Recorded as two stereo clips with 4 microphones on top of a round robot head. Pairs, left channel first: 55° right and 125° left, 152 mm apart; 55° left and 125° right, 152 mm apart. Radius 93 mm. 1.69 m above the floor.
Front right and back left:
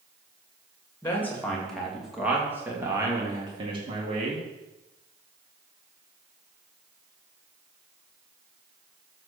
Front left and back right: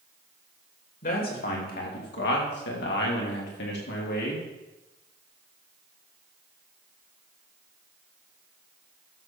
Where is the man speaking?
20° left, 3 m; by 4.4 s 75° left, 3.5 m.